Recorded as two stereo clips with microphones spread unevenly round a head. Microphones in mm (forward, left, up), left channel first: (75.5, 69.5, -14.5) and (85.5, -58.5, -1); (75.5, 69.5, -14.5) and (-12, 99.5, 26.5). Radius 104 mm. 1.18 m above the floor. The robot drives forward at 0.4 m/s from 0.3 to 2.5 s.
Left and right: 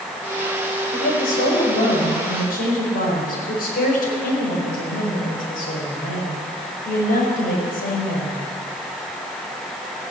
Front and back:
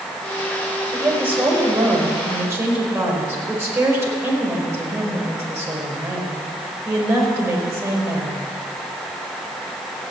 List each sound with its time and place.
0.9 s a woman speaking: 95° left, 4.5 m; by 8.5 s 100° left, 5 m